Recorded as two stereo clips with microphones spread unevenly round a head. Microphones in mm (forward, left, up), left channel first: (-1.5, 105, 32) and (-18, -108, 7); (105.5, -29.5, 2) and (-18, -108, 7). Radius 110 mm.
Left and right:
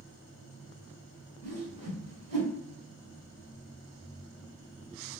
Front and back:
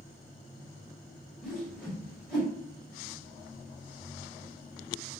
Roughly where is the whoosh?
Ahead right.